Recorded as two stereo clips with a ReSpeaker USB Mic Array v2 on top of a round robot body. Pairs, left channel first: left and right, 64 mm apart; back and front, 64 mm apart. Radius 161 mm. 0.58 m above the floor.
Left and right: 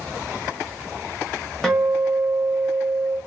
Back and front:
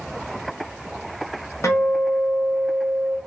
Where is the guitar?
170° left, 1.5 m.